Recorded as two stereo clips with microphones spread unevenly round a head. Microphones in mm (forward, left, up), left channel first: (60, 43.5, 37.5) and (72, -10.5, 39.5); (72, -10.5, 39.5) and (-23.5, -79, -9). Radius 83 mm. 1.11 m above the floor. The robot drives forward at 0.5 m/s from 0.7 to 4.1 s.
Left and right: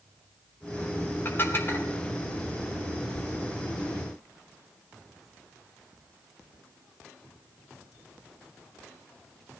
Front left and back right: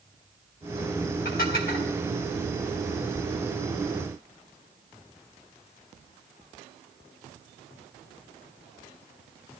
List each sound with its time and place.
1.2 s dishes clattering: 50° left, 2.5 m; by 1.9 s 60° left, 2 m